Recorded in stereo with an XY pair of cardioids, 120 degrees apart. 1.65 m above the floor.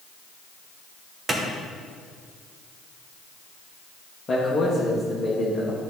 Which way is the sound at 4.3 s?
35° left.